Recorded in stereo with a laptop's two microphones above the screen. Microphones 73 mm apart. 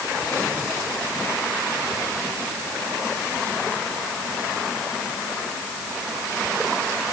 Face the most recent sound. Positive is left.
No sound to turn to.